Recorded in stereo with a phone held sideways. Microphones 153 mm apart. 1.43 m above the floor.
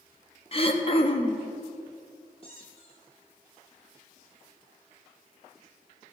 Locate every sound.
0.5 s throat clearing: 40° left (ahead or behind), 1.0 m
2.4 s a squeak: 40° left (ahead or behind), 2.5 m